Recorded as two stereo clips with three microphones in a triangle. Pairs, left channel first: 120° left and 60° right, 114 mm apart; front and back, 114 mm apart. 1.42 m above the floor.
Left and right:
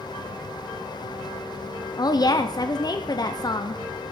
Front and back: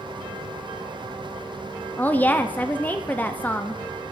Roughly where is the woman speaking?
Left.